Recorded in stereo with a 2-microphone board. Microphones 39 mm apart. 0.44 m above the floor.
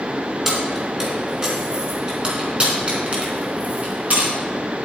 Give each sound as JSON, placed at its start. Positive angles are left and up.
{"t": 0.5, "sound": "keys jangling", "side_deg": -15, "distance_m": 3.5}